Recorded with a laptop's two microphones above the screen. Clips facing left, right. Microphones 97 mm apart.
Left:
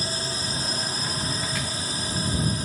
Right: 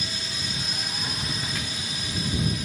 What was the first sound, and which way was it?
A drone, 35° left (ahead or behind).